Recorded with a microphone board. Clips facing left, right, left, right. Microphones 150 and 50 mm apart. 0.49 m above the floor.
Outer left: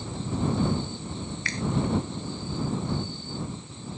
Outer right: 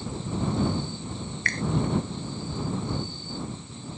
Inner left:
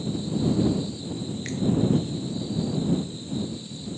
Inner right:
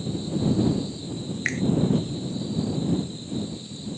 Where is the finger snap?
55° right (ahead or behind).